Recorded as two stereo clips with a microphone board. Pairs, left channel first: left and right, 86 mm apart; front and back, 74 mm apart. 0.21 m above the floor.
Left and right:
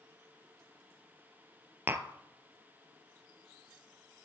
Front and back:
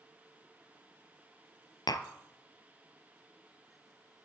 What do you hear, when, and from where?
1.9 s tapping: 25° right, 0.6 m